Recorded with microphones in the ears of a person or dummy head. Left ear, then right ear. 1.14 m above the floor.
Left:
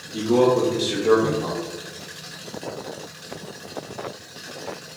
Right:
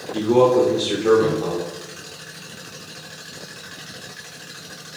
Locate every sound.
0.1 s a man speaking: 50° right (ahead or behind), 0.8 m